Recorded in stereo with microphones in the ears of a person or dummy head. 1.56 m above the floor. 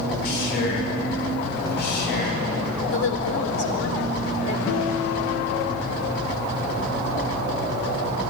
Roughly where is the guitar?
Left.